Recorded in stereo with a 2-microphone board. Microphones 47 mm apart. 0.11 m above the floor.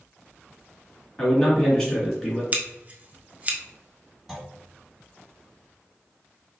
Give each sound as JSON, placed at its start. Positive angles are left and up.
{"t": 1.2, "sound": "a man speaking", "side_deg": 10, "distance_m": 1.5}
{"t": 2.5, "sound": "scissors", "side_deg": -30, "distance_m": 0.7}
{"t": 4.3, "sound": "a clunk", "side_deg": 0, "distance_m": 0.9}